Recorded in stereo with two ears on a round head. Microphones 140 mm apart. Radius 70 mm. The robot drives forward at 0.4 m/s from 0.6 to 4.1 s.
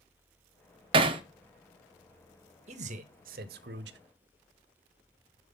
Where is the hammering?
35° right (ahead or behind), 0.7 m.